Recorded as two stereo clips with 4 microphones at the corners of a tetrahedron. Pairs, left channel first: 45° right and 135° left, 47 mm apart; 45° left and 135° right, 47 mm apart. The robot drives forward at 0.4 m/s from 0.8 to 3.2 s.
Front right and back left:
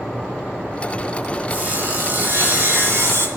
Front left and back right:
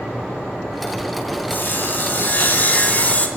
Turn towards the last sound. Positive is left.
turn(degrees=105)